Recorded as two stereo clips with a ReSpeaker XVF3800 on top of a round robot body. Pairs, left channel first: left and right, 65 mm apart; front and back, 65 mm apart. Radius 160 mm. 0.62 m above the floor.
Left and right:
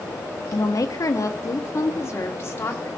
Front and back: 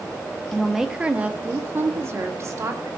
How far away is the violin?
No violin in this recording.